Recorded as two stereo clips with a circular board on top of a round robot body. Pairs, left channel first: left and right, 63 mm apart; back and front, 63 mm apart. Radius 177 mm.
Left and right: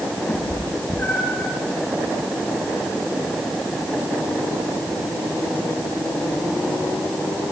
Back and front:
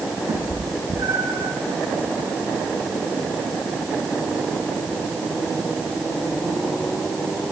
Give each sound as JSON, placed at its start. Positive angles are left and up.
{"t": 0.3, "sound": "a cat meowing", "azimuth_deg": 30, "distance_m": 4.5}